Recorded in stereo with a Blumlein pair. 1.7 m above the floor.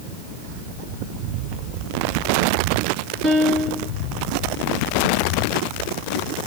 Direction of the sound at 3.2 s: 30° right.